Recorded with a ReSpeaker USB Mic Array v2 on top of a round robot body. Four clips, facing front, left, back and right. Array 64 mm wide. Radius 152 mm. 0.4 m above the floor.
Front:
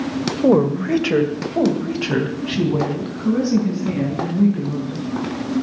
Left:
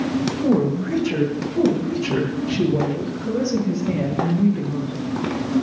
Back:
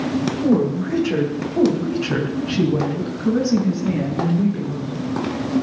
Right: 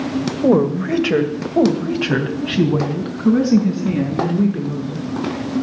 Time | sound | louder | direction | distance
0.4 | a woman speaking | right 6 dB, front 5 dB | 40° right | 1.9 m